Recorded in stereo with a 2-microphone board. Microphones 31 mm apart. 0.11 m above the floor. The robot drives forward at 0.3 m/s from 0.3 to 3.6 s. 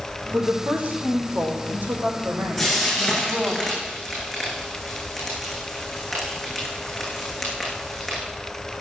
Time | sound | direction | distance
0.3 | a woman speaking | 70° right (ahead or behind) | 5 m
2.6 | frying | centre (ahead or behind) | 7.5 m